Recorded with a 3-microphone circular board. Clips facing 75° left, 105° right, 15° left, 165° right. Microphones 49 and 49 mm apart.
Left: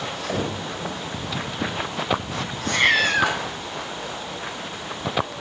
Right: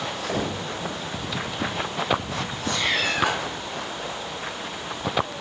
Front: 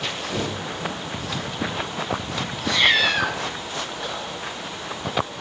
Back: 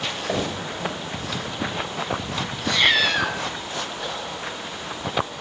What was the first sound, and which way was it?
Knocking, 160° left.